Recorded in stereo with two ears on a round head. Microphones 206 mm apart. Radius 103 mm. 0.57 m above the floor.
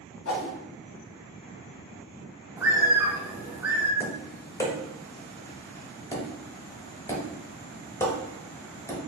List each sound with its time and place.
0.2 s a whoosh: 70° left (ahead or behind), 1.3 m
2.6 s a bird: 10° right (ahead or behind), 0.6 m
4.0 s tapping: 15° left (ahead or behind), 0.8 m